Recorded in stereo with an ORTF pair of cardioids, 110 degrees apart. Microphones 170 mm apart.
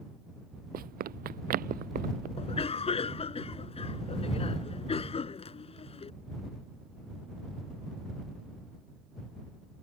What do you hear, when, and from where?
0.7 s running footsteps: 60° right
2.4 s a cough: 35° left